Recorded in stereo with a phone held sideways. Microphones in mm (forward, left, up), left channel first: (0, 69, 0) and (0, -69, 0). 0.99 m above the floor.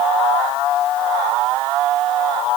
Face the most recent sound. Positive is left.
No sound to turn to.